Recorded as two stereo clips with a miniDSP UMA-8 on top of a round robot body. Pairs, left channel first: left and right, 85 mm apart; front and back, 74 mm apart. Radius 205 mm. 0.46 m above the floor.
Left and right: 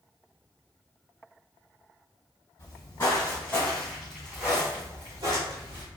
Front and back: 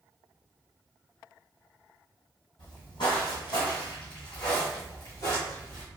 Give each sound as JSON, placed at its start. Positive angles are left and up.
{"t": 2.6, "sound": "footsteps", "azimuth_deg": 40, "distance_m": 1.5}